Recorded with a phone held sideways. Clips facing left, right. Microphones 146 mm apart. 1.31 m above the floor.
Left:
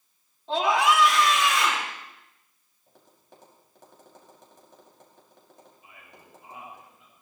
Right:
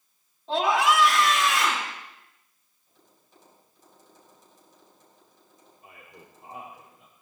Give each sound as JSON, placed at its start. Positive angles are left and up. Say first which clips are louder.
{"t": 0.5, "sound": "a scream", "louder": "even", "side_deg": 0, "distance_m": 4.0}
{"t": 2.9, "sound": "tapping", "louder": "left 6 dB", "side_deg": 85, "distance_m": 5.0}
{"t": 5.8, "sound": "a man speaking", "louder": "right 3 dB", "side_deg": -55, "distance_m": 5.0}